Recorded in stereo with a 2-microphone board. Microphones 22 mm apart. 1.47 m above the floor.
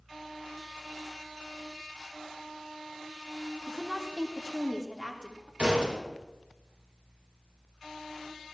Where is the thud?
65° right (ahead or behind), 4 m.